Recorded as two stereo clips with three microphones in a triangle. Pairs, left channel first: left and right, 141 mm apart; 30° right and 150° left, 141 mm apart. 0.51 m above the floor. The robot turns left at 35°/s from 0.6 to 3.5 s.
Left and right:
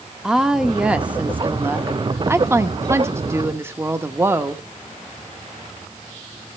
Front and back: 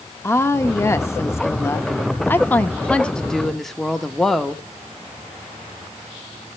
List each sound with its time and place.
0.2 s a woman speaking: 10° right, 0.7 m; by 4.6 s 115° right, 0.7 m